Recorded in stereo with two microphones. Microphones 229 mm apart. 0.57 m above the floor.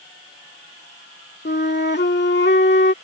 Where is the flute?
50° left (ahead or behind).